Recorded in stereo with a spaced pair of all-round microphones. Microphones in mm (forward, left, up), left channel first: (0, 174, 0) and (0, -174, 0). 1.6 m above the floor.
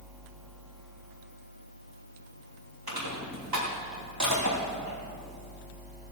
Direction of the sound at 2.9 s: 75° right (ahead or behind).